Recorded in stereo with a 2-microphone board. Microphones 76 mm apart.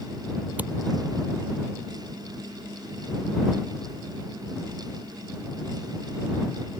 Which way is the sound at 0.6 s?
20° right (ahead or behind).